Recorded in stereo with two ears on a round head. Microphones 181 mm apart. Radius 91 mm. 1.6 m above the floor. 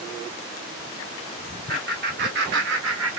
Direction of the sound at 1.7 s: 45° right (ahead or behind).